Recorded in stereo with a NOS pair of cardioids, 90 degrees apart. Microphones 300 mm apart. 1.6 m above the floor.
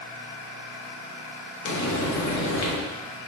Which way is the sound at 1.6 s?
60° left.